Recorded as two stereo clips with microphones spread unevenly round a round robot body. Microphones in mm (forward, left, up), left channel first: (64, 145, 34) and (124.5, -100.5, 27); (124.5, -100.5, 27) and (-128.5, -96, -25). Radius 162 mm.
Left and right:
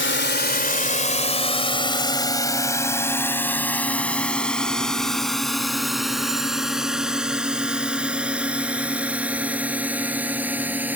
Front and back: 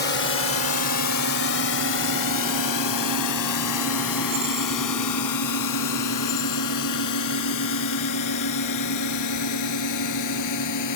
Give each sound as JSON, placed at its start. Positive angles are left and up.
{"t": 0.0, "sound": "a drone", "azimuth_deg": 65}